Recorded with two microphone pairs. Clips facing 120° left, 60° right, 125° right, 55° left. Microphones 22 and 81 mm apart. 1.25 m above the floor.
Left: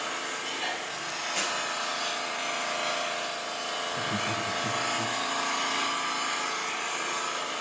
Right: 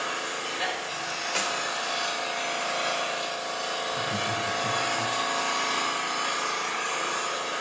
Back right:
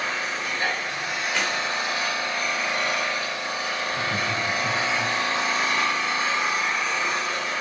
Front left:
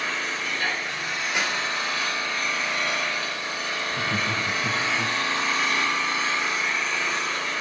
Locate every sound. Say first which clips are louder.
0.0 s an engine running: right 2 dB, back right 1 dB; 55° right, 5.5 m
1.4 s a clap: right 2 dB, even; 20° right, 3.5 m
3.9 s laughter: right 1 dB, front left 1 dB; 105° left, 0.8 m